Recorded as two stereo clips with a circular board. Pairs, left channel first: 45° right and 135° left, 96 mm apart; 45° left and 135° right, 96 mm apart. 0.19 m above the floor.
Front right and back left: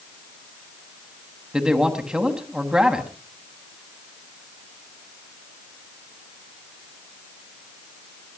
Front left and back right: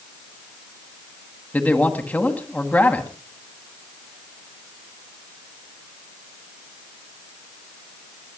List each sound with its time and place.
1.5 s a man speaking: 70° left, 1.5 m